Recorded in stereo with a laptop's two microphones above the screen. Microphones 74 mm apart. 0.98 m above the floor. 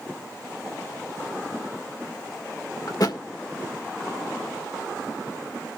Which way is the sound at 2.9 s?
55° left (ahead or behind).